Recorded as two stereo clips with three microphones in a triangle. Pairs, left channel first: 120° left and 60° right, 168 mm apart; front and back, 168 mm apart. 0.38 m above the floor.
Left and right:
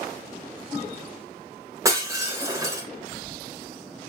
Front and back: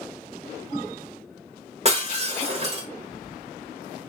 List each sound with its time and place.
1.9 s breaking glass: 130° right, 1.3 m